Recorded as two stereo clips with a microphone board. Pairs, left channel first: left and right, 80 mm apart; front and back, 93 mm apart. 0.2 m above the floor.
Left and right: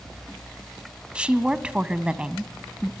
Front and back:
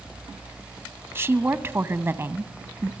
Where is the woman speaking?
150° right, 1.1 m.